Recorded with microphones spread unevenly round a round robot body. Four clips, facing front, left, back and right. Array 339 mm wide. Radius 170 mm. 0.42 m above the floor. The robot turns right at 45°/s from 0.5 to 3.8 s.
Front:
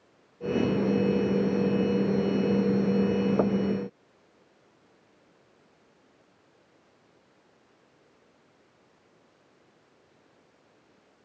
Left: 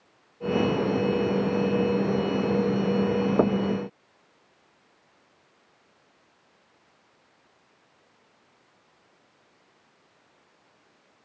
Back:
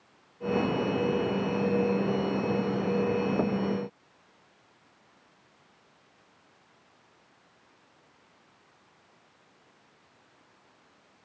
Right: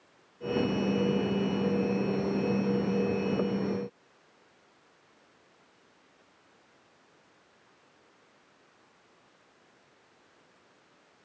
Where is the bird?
I don't hear a bird.